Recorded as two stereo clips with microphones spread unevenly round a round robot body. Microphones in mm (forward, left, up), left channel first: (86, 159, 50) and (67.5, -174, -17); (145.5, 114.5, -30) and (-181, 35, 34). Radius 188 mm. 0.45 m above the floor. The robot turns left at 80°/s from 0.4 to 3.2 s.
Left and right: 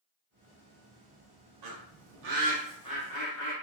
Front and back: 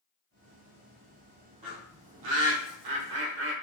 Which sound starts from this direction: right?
A bird, at 1.6 s.